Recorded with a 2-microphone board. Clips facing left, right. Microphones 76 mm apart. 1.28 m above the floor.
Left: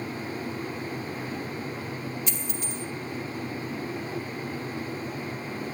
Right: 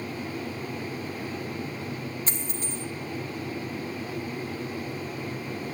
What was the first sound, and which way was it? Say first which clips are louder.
A dropped coin: even; 40° right (ahead or behind).